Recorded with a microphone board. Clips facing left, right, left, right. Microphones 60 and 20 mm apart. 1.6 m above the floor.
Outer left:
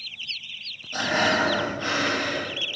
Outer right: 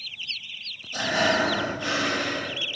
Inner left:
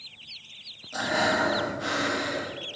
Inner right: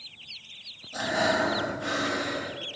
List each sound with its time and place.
0.9 s breathing: 45° left (ahead or behind), 1.3 m